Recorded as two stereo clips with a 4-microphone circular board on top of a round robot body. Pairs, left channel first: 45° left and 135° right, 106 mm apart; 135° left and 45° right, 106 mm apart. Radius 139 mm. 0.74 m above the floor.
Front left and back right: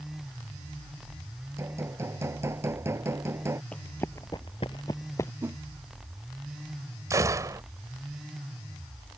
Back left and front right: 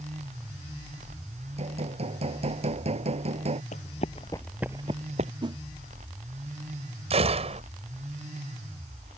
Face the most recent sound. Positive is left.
turn(degrees=-75)